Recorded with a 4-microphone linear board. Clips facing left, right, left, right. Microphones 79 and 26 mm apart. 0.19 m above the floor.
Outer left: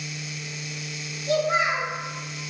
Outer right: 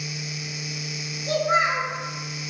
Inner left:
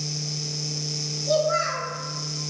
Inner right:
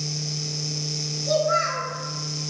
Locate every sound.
1.3 s a child speaking: 50° right (ahead or behind), 1.7 m